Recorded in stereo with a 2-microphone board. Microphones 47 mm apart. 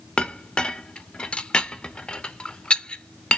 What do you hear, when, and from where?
0.2 s a clink: 20° left (ahead or behind), 0.6 m